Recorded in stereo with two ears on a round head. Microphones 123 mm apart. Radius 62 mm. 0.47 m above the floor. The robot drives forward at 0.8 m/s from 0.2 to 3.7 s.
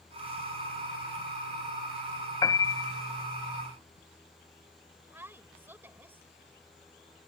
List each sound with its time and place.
2.4 s a piano: 30° left (ahead or behind); by 3.2 s 20° left (ahead or behind)
5.1 s a woman speaking: 15° right (ahead or behind)